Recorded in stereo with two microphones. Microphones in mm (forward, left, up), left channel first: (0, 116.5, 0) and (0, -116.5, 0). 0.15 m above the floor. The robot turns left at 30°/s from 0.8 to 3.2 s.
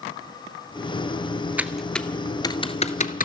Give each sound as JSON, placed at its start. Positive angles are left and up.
{"t": 1.6, "sound": "typing on a keyboard", "side_deg": -5, "distance_m": 0.9}